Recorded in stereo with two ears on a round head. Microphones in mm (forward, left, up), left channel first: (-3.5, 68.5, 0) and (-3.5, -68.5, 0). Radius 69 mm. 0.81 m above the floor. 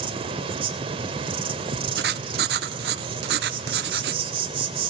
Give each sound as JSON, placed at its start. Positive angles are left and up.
{"t": 0.0, "sound": "an insect", "side_deg": -35, "distance_m": 2.5}
{"t": 2.0, "sound": "writing", "side_deg": -75, "distance_m": 1.0}